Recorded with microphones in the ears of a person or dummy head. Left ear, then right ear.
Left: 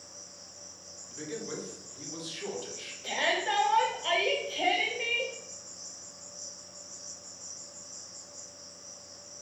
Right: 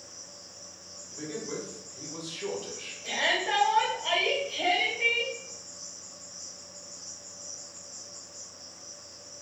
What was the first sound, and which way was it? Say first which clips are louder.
An insect: right 2 dB; 15° left (ahead or behind).